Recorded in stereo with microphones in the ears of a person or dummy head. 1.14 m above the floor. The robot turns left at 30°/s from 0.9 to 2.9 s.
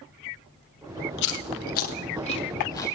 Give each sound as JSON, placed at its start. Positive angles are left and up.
{"t": 1.2, "sound": "chewing", "side_deg": 65, "distance_m": 2.0}